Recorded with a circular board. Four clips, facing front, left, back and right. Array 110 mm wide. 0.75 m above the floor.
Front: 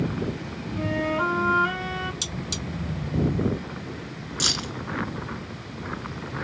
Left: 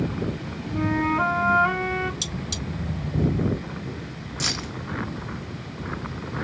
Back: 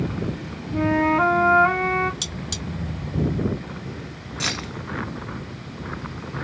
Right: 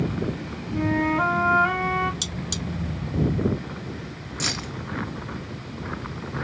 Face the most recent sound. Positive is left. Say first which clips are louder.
# even, back 2 dB
turn(degrees=-175)